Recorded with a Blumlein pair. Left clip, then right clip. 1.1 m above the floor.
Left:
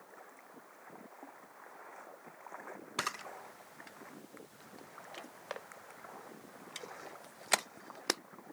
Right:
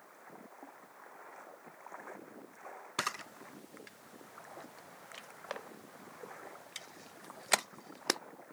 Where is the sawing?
No sawing in this recording.